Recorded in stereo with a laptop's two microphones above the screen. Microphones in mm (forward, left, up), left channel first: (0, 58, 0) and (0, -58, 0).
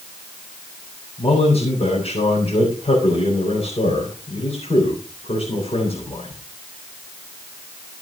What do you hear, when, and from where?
1.2 s a man speaking: 60° left (ahead or behind), 4 m